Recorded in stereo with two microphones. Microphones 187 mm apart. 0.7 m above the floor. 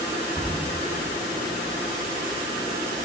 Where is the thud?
15° right (ahead or behind), 1.6 m.